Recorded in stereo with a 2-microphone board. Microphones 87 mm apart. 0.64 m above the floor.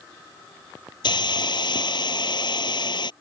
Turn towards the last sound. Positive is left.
turn(degrees=60)  # may be behind; listen again after turning